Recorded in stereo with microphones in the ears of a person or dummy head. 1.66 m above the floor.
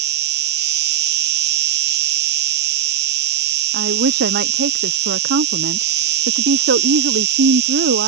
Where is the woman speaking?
55° right (ahead or behind).